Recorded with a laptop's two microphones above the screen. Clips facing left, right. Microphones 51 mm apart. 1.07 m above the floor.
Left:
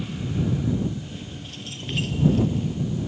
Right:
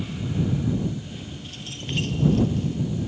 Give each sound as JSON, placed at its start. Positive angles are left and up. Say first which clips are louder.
{"t": 1.0, "sound": "keys jangling", "louder": "even", "side_deg": 0}